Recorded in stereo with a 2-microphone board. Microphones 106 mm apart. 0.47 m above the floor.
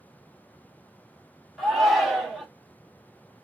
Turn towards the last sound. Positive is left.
turn(degrees=0)  # may be behind; listen again after turning